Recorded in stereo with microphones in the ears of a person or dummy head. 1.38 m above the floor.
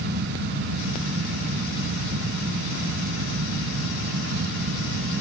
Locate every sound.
Only background noise.